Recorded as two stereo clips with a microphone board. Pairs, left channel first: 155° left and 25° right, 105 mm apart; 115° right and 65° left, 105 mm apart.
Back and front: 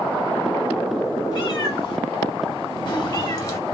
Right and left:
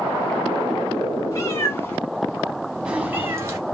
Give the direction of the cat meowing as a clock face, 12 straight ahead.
5 o'clock.